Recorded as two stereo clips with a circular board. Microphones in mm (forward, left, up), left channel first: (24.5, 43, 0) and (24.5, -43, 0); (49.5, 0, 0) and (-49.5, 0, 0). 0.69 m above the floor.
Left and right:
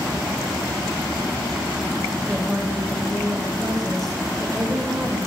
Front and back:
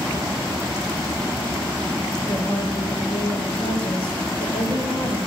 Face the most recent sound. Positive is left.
turn(degrees=5)